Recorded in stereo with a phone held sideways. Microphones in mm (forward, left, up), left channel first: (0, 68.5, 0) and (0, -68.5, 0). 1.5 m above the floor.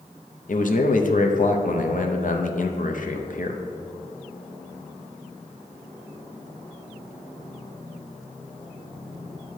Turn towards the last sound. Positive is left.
turn(degrees=65)  # may be behind; listen again after turning